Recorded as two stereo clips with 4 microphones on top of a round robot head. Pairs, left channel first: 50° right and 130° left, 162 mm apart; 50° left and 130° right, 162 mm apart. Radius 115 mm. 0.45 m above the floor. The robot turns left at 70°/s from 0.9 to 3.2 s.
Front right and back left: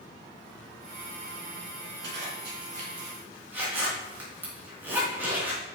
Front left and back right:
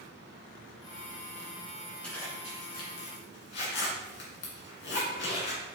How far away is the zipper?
About 3 m.